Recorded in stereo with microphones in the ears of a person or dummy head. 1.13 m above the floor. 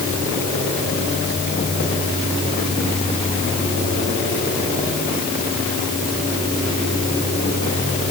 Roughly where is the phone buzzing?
I don't hear a phone buzzing.